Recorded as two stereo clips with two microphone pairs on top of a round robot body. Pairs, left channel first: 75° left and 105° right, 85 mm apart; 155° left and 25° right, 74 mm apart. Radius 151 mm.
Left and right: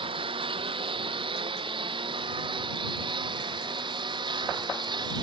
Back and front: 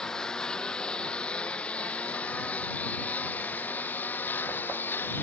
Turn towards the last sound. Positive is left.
turn(degrees=-140)